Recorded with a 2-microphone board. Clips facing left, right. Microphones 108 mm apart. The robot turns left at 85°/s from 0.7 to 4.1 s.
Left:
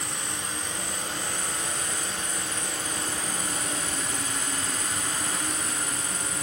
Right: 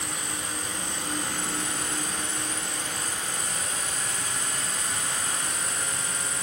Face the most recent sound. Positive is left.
turn(degrees=60)